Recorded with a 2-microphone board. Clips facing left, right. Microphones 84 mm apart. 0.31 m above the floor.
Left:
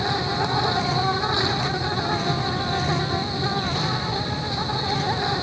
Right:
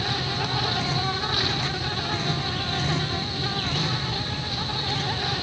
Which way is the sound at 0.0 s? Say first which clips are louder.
Left 5 dB; 25° left (ahead or behind).